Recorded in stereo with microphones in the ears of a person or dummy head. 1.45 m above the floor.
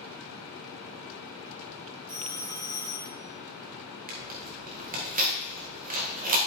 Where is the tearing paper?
40° right (ahead or behind), 1.8 m.